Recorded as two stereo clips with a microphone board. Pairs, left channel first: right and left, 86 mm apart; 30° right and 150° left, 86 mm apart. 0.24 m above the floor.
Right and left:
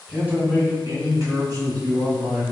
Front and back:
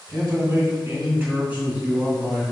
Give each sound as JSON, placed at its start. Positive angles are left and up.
{"t": 0.1, "sound": "a man speaking", "azimuth_deg": 155, "distance_m": 1.7}